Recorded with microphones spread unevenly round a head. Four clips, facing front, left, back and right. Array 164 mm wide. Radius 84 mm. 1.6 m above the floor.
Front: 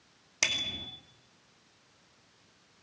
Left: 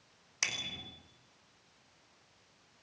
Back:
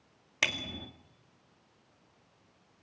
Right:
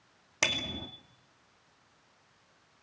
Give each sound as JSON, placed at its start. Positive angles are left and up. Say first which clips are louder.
{"t": 0.4, "sound": "a bicycle bell", "louder": "right 9 dB, back 2 dB", "azimuth_deg": -100, "distance_m": 2.0}